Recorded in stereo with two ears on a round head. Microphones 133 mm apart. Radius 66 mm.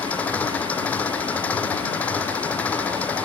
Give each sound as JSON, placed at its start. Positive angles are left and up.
{"t": 0.0, "sound": "an engine running", "side_deg": 10}